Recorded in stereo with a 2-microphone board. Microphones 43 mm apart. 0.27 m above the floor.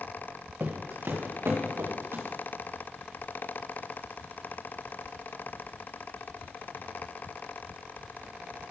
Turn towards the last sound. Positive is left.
turn(degrees=-70)  # may be behind; listen again after turning